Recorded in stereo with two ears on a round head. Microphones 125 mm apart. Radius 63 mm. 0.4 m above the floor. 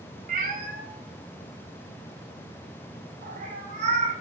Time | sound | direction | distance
0.3 | a cat meowing | 55° right (ahead or behind) | 1.2 m